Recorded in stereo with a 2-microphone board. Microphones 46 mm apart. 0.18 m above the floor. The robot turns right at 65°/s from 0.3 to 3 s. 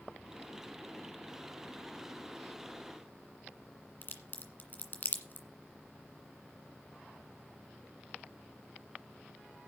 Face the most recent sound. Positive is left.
turn(degrees=45)  # may be behind; listen again after turning